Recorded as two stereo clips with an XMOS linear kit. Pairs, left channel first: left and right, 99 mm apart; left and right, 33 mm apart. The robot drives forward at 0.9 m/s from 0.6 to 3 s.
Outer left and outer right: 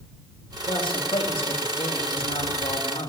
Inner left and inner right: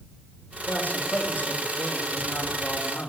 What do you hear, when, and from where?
0.7 s a man speaking: 60° left (ahead or behind), 4 m; by 3.1 s 85° left, 3.5 m